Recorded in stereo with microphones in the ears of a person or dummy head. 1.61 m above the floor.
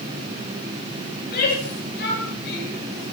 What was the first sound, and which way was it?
A shout, 50° left (ahead or behind).